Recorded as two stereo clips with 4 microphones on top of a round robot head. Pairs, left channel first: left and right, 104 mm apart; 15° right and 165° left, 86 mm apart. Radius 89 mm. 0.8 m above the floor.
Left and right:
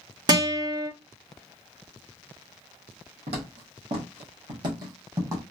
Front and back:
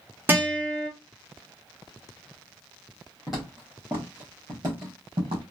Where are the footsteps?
105° right, 2 m; by 5.4 s 150° right, 2 m.